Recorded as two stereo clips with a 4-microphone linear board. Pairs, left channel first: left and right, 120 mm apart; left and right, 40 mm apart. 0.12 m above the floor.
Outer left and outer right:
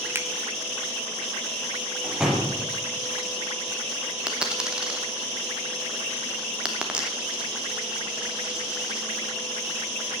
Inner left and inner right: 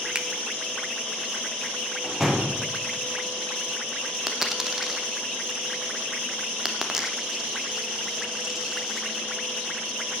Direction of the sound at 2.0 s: 5° right (ahead or behind).